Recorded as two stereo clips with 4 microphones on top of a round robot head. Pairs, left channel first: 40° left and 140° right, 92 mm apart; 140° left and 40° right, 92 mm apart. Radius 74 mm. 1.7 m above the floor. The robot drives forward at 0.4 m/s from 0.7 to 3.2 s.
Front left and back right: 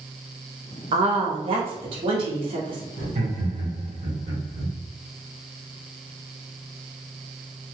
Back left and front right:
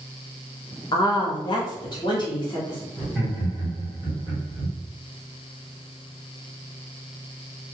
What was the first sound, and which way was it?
A woman speaking, 170° right.